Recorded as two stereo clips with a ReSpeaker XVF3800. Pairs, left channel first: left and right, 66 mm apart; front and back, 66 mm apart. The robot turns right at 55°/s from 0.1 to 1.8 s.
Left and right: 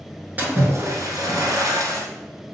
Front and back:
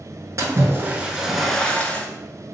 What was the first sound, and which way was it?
A splash, 150° right.